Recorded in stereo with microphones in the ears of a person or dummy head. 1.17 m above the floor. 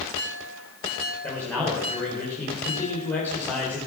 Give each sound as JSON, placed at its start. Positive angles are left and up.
{"t": 1.2, "sound": "a man speaking", "side_deg": 5, "distance_m": 4.0}